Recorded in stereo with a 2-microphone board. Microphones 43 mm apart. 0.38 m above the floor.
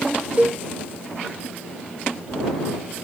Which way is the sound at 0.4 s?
30° right (ahead or behind).